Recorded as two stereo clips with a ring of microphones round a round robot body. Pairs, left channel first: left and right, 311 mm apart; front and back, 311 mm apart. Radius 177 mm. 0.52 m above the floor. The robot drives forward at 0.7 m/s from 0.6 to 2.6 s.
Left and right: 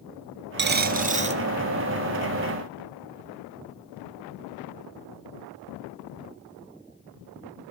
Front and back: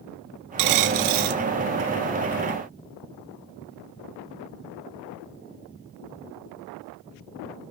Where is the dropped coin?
150° right, 0.9 m; by 1.4 s 160° right, 1.4 m.